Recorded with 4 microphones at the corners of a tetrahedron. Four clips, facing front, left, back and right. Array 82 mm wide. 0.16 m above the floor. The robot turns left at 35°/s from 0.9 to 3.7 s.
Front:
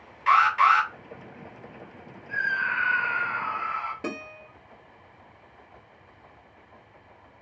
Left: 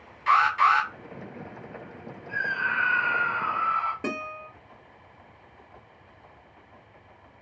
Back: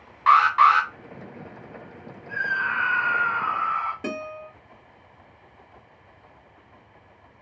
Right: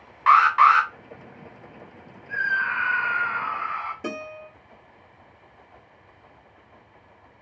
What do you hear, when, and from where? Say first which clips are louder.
0.3 s an alarm: right 5 dB, back 3 dB; 125° right, 1.4 m
2.3 s a scream: right 3 dB, back 1 dB; 145° right, 1.5 m; by 3.9 s 165° left, 1.5 m
4.0 s a guitar: left 1 dB, back 3 dB; 80° left, 1.5 m